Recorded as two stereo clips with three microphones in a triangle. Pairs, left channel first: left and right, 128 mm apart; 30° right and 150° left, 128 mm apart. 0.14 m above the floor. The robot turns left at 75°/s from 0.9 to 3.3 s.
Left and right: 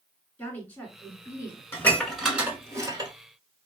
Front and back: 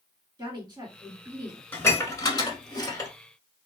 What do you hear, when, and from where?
0.4 s a woman speaking: 155° left, 1.9 m; by 1.6 s 105° left, 1.9 m
1.7 s dishes clattering: 30° left, 1.2 m; by 3.1 s 70° right, 1.2 m